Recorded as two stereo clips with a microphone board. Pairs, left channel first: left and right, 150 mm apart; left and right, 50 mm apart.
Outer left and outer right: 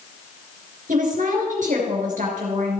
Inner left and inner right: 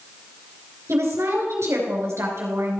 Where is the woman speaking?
65° right (ahead or behind), 3.5 m.